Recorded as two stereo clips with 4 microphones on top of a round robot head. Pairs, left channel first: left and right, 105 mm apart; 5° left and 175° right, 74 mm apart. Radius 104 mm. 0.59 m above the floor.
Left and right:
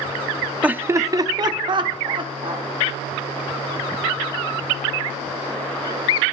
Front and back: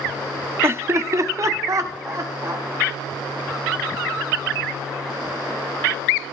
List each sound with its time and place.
0.6 s laughter: 160° right, 0.6 m; by 2.6 s 125° right, 1.9 m